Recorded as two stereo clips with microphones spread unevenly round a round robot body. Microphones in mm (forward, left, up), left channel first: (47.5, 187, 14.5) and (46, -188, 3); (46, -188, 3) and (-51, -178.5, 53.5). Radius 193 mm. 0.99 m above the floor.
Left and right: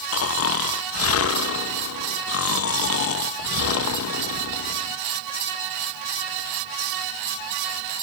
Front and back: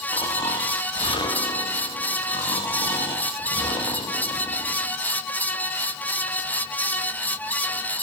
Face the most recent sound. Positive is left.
turn(degrees=35)